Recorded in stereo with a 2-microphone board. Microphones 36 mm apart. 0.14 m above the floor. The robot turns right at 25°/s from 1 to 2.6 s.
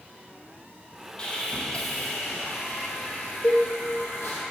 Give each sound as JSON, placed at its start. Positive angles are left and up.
{"t": 1.2, "sound": "sawing", "azimuth_deg": 25, "distance_m": 4.0}
{"t": 3.4, "sound": "a cowbell", "side_deg": 70, "distance_m": 4.0}